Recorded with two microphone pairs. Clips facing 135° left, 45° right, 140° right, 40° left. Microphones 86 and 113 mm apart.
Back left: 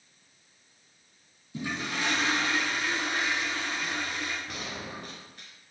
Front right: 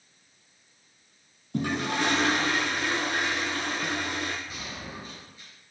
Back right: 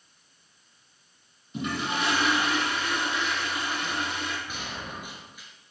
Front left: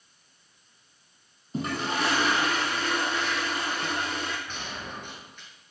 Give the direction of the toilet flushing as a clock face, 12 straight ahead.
12 o'clock.